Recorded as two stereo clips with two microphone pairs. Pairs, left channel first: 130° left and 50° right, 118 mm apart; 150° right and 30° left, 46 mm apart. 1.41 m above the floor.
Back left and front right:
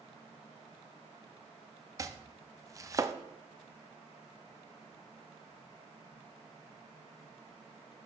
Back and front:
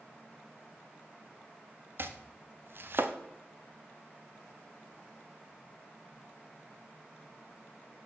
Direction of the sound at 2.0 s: 10° left.